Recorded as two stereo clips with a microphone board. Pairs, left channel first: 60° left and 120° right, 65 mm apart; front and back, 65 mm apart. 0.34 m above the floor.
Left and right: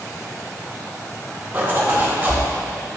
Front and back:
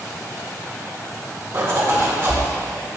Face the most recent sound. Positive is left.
turn(degrees=-170)